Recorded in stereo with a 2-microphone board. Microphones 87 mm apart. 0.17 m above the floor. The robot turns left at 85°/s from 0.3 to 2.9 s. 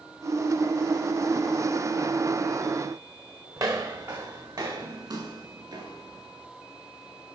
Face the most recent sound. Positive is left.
turn(degrees=-50)  # may be behind; listen again after turning